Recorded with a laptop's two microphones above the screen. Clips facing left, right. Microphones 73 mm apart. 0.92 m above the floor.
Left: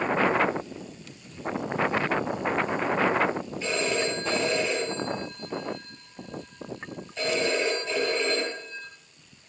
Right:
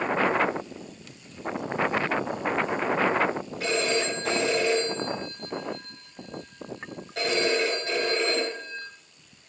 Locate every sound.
3.6 s a phone ringing: 70° right (ahead or behind), 8.5 m